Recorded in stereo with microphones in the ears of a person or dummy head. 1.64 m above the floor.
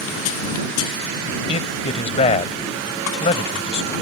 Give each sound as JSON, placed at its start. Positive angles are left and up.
{"t": 1.5, "sound": "a man speaking", "side_deg": 35}